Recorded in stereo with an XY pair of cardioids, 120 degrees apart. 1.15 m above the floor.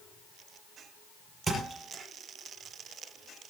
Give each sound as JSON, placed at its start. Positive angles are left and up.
{"t": 1.5, "sound": "a thud", "azimuth_deg": -20, "distance_m": 6.5}